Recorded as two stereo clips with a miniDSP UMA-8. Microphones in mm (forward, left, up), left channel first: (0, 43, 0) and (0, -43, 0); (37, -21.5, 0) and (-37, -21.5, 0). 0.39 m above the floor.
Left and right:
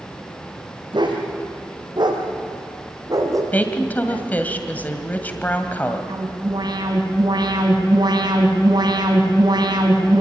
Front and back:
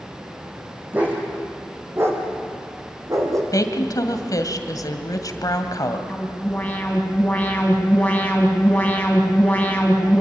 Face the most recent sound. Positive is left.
turn(degrees=-70)